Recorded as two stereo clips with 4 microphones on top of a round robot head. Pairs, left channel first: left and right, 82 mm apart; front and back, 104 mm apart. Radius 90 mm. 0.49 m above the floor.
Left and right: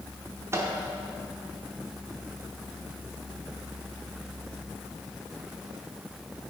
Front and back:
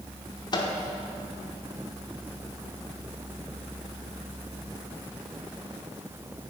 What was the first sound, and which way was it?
A microwave, 40° right.